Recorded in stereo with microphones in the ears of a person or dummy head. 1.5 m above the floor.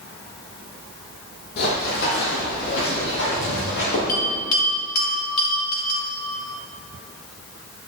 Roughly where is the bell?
Left.